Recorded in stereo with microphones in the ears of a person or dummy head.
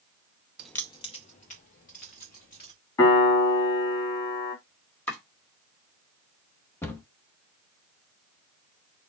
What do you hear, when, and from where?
0.6 s keys jangling: 5° right (ahead or behind), 0.6 m; by 2.7 s 50° left (ahead or behind), 3.5 m
3.0 s a piano: 20° left (ahead or behind), 3 m
5.1 s chopping: 15° left (ahead or behind), 2 m
6.8 s a cupboard door: 15° left (ahead or behind), 1.0 m